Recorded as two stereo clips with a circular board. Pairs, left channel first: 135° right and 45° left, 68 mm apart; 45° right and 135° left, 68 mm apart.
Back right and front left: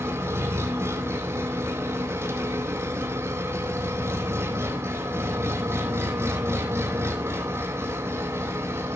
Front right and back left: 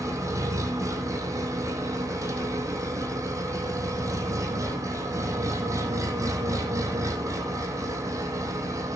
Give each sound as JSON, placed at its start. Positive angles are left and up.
{"t": 0.0, "sound": "an engine running", "azimuth_deg": 95, "distance_m": 3.5}